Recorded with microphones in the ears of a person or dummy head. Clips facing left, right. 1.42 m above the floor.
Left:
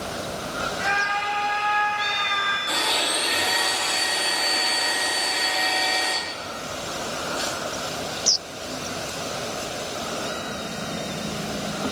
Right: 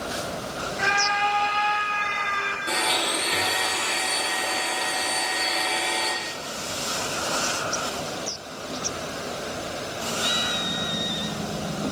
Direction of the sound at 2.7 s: 45° right (ahead or behind).